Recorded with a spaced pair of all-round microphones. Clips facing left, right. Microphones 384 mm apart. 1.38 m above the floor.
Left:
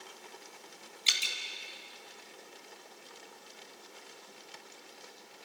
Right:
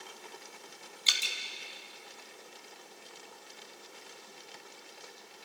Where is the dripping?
40° left (ahead or behind), 2 m.